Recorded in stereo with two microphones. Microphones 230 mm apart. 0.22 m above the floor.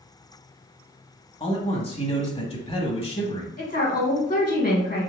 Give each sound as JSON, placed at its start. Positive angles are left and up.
{"t": 1.4, "sound": "a man speaking", "side_deg": 25, "distance_m": 1.0}
{"t": 3.6, "sound": "a woman speaking", "side_deg": 40, "distance_m": 1.5}